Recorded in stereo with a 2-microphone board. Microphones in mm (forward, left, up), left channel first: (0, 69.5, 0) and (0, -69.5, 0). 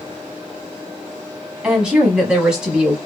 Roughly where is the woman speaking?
Centre.